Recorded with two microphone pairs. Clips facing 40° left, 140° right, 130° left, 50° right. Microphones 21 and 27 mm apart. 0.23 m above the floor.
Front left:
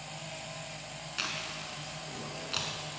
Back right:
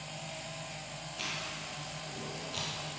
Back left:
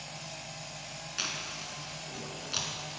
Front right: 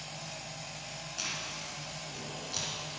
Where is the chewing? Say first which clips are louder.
Front left 3 dB, back left 2 dB; 75° left, 2.5 m.